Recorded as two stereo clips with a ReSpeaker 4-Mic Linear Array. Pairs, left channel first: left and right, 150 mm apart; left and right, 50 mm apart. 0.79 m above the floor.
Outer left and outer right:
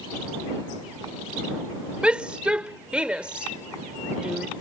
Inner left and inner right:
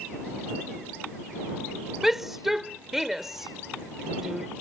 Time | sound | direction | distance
2.0 | a shout | 10° right (ahead or behind) | ?